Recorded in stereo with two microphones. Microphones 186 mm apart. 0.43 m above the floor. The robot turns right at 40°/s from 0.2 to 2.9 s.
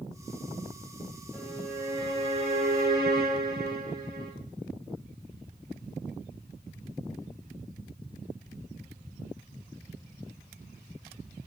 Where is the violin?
175° left, 2.5 m; by 4.3 s 120° right, 2.5 m.